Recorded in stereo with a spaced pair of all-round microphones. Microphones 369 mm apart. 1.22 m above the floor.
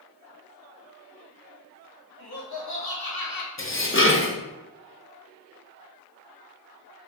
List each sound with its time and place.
2.2 s laughter: 85° left, 2 m; by 3.5 s 60° left (ahead or behind), 0.9 m
3.6 s dishes clattering: 35° left (ahead or behind), 0.7 m